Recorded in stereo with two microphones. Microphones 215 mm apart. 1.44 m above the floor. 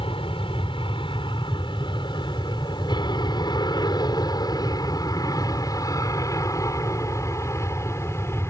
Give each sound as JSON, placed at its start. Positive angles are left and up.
{"t": 0.0, "sound": "an aircraft", "side_deg": 25}